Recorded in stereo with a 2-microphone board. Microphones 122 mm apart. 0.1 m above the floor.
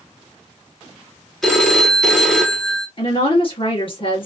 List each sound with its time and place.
1.4 s a phone ringing: 5° left (ahead or behind), 0.8 m
3.0 s a woman speaking: 45° left (ahead or behind), 1.8 m